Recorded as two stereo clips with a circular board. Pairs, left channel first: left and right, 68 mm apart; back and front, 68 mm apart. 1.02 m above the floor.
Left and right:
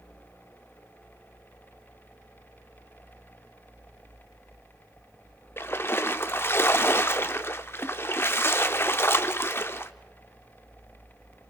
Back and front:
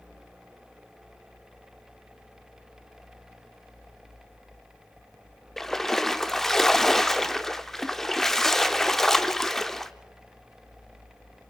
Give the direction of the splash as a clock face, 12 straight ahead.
9 o'clock.